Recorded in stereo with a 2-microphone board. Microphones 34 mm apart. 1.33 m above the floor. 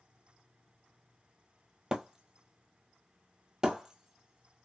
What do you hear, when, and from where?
1.9 s breaking glass: 20° right (ahead or behind), 1.4 m